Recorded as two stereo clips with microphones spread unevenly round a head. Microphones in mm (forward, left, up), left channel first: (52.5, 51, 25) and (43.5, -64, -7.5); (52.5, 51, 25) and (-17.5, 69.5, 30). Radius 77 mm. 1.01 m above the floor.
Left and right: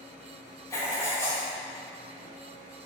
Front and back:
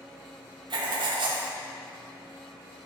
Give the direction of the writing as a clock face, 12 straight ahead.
7 o'clock.